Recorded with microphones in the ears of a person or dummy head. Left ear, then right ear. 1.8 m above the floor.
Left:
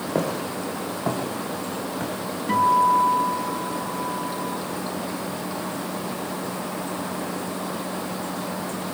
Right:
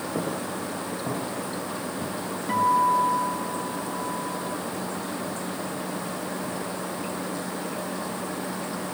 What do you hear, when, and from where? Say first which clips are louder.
0.1 s footsteps: left 6 dB; 60° left (ahead or behind), 6.5 m; by 2.1 s 55° left (ahead or behind), 7 m
2.5 s a guitar: left 3 dB; centre (ahead or behind), 4.5 m